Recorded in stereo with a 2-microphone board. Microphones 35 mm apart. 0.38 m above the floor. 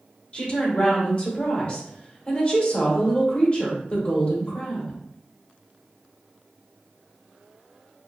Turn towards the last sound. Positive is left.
turn(degrees=35)  # may be behind; listen again after turning